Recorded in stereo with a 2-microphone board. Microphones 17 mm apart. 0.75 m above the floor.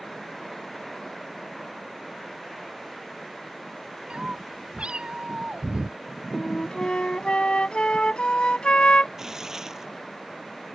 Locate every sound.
4.1 s a cat meowing: 80° right; by 6.0 s 70° right (ahead or behind)
6.3 s a flute: 85° left
9.2 s tearing paper: 30° right (ahead or behind)